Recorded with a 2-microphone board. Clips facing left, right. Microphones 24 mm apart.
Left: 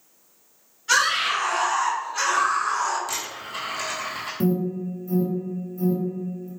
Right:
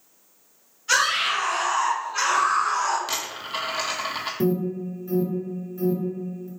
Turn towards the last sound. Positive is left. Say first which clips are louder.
# left 1 dB
turn(degrees=-35)  # may be behind; listen again after turning